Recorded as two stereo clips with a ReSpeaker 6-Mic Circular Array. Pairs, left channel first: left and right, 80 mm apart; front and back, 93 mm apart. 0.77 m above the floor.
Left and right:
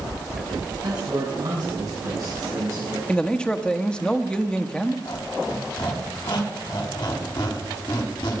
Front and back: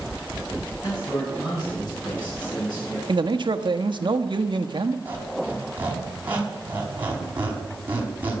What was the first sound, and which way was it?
A man speaking, 45° right.